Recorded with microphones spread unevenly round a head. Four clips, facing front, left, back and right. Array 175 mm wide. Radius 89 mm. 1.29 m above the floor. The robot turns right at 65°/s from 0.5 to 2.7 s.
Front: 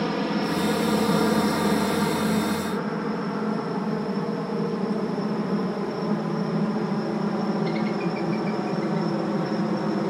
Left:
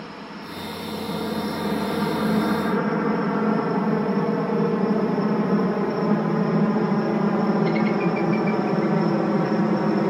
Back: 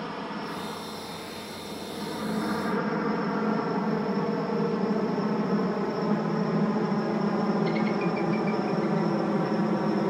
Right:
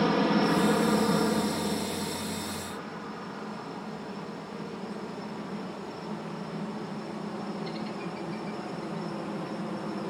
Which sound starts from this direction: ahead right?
A helicopter, at 0.0 s.